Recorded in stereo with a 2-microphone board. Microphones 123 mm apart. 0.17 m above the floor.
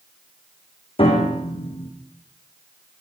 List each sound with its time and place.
1.0 s a piano: 50° left (ahead or behind), 4 m